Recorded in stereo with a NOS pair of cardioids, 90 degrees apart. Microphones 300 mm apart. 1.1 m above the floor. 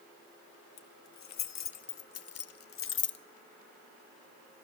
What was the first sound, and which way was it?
Keys jangling, 65° left.